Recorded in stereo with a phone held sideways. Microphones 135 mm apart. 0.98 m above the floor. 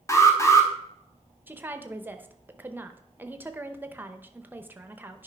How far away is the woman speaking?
About 0.7 m.